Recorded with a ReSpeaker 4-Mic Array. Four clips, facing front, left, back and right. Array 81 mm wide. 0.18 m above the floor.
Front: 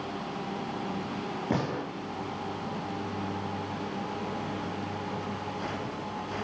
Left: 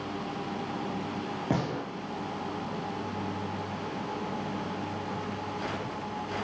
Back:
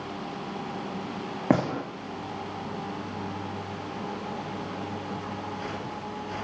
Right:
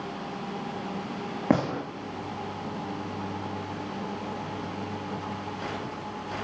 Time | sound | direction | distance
1.5 | a gunshot | 150° right | 7 m